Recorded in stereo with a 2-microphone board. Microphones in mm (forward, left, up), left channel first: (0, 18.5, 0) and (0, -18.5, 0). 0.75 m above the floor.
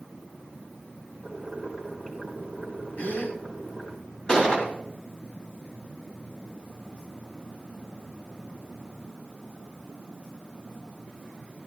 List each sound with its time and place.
1.2 s boiling: 20° left (ahead or behind), 3.5 m
3.0 s a gasp: 65° left (ahead or behind), 4 m
4.3 s a gunshot: 30° left (ahead or behind), 4 m